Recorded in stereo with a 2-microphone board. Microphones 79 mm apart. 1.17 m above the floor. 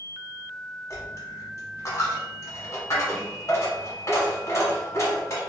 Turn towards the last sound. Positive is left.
turn(degrees=40)  # may be behind; listen again after turning